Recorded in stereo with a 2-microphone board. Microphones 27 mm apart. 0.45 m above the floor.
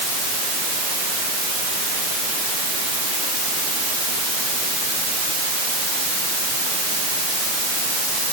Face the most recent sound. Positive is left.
No sound to turn to.